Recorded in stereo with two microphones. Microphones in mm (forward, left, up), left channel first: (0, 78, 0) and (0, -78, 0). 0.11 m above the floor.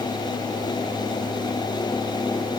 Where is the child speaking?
I don't hear a child speaking.